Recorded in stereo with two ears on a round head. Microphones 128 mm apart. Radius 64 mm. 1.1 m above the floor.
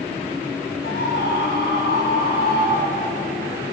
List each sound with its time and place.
0.8 s a scream: 75° left (ahead or behind), 9.5 m